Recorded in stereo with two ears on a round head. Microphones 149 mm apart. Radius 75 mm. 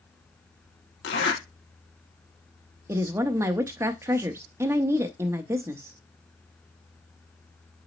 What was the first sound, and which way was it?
A zipper, 80° left.